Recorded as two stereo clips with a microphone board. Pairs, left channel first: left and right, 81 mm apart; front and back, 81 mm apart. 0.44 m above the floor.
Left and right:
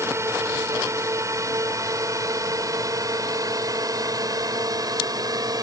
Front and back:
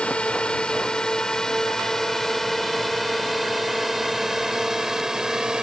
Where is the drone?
70° right; by 5.6 s 100° right.